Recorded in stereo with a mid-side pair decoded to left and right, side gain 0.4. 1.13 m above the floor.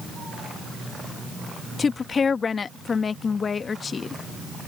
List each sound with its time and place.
1.8 s a woman speaking: 45° left